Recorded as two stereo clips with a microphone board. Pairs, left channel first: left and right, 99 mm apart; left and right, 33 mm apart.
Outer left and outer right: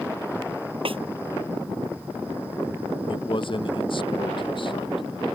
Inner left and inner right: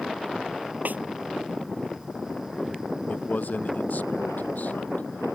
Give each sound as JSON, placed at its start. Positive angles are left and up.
{"t": 0.8, "sound": "a snare drum", "side_deg": -65}
{"t": 3.1, "sound": "a man speaking", "side_deg": 55}